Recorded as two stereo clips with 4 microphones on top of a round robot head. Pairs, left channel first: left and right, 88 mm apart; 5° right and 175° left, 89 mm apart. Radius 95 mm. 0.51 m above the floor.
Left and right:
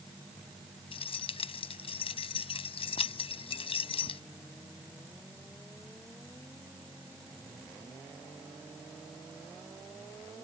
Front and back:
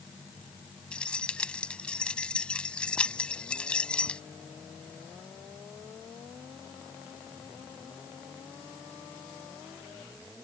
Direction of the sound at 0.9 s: 70° left.